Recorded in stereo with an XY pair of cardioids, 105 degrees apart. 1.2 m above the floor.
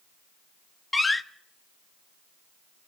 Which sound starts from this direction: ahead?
A door slam, at 0.9 s.